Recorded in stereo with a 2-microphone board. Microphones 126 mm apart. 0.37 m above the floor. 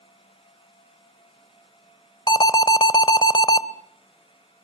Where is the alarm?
35° left (ahead or behind), 1.0 m.